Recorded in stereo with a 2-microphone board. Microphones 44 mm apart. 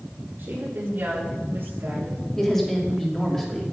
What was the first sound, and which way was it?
A woman speaking, 50° right (ahead or behind).